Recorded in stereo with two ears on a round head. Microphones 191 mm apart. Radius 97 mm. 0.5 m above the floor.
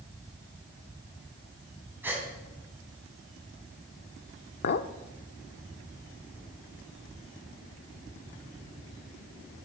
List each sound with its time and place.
2.0 s a gasp: 10° right (ahead or behind), 3 m
4.6 s a clink: 50° left (ahead or behind), 0.6 m